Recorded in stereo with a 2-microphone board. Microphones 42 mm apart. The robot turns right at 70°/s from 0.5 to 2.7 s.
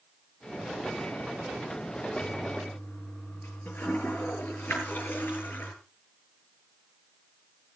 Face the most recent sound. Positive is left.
turn(degrees=55)  # may be behind; listen again after turning